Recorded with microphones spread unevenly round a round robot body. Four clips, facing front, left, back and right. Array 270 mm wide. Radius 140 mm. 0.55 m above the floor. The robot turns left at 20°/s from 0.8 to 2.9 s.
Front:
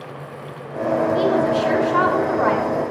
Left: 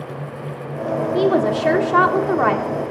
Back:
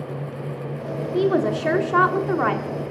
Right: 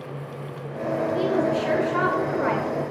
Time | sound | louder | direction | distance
1.1 | a woman speaking | left 7 dB, back 3 dB | 125° left | 1.2 m